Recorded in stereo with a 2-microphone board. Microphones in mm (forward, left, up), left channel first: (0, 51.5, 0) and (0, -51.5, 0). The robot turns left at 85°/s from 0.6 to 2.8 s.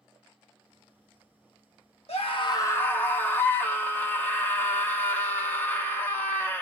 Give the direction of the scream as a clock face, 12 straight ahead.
9 o'clock.